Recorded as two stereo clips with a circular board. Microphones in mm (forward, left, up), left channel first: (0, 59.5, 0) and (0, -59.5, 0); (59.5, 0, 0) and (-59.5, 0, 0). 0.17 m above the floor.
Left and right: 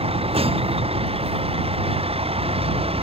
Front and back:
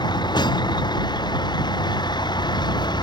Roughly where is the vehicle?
Ahead right.